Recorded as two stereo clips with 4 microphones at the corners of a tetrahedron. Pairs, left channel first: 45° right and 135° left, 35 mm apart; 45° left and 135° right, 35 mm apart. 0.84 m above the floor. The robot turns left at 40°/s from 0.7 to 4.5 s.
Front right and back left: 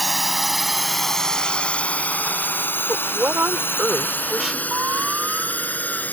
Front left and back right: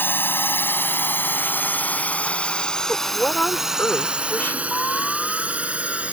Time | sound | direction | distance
0.0 | a drone | 45° left | ?
2.9 | a woman speaking | 120° left | ?
4.7 | an alarm | 110° left | ?